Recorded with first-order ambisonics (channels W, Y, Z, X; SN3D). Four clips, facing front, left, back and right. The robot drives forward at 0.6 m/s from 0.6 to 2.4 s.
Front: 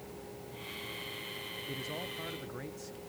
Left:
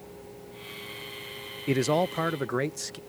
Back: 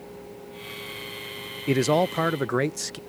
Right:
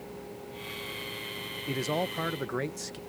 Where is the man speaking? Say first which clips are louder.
Left 6 dB, back 21 dB; 155° left; by 3.0 s 165° left.